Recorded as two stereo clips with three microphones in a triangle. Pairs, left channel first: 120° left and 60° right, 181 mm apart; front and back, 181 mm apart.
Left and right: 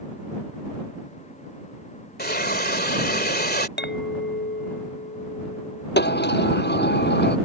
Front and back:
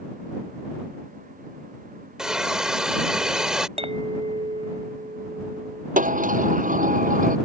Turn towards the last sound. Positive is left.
turn(degrees=135)